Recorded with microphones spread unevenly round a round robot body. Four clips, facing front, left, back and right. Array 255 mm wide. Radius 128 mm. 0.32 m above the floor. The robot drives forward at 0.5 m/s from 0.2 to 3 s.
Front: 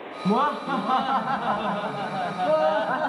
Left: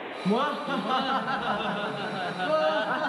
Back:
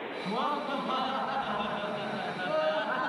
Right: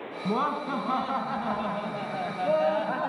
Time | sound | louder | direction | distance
0.2 | laughter | left 1 dB, front 9 dB | 15° right | 3.5 m